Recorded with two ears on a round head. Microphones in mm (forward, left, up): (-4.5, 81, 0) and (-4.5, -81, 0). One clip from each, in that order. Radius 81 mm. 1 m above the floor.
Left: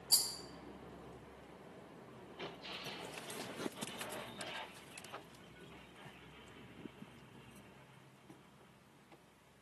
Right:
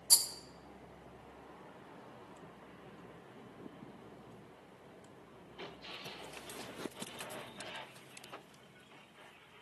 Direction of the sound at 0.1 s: 45° right (ahead or behind).